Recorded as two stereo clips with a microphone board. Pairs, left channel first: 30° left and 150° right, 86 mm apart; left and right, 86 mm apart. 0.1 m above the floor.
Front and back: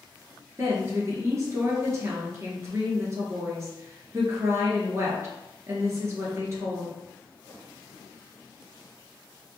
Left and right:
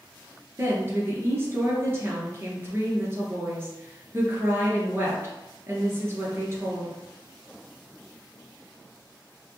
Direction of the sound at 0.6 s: 130° right.